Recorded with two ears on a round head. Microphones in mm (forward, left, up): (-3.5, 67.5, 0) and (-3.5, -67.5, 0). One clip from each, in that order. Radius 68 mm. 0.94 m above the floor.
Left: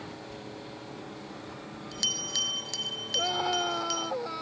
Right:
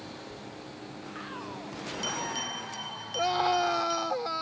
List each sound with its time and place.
0.3 s a bell: 85° left
3.1 s a scream: 35° right (ahead or behind)